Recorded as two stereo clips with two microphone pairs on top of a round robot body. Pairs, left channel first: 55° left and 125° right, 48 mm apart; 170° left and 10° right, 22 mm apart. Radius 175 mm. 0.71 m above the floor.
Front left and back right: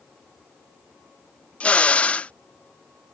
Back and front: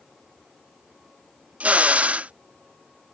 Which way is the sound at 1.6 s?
10° right.